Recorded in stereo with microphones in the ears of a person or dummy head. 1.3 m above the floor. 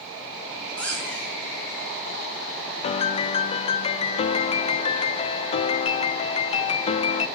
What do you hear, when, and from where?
0.8 s a squeak: centre (ahead or behind), 6.5 m
2.8 s a piano: 30° left (ahead or behind), 0.5 m